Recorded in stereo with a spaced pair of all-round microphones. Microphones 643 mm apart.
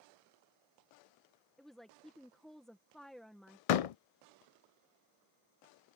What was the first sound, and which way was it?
A woman speaking, centre (ahead or behind).